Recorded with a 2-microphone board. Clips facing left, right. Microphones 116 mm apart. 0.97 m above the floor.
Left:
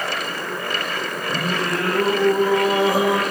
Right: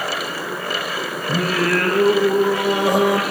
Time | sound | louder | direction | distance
1.3 | singing | right 5 dB | 80° right | 4 m